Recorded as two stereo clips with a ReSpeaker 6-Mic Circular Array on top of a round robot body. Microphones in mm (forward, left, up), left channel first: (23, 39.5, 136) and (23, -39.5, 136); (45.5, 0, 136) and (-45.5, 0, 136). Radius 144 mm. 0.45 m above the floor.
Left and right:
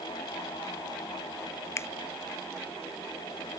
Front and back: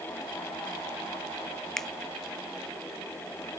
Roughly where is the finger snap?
Left.